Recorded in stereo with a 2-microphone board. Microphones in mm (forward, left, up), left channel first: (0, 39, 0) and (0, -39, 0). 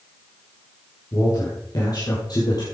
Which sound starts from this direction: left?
A man speaking, at 1.1 s.